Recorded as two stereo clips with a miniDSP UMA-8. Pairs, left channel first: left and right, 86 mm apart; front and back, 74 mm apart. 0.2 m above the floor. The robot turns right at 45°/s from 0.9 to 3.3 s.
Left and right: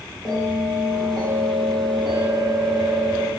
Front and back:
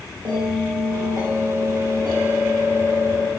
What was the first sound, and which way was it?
A bell, 175° right.